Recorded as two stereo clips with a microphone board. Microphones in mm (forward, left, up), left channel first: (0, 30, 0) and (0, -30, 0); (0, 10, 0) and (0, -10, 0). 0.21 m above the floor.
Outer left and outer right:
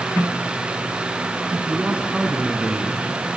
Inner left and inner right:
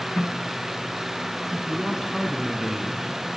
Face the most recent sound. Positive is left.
turn(degrees=-20)  # may be behind; listen again after turning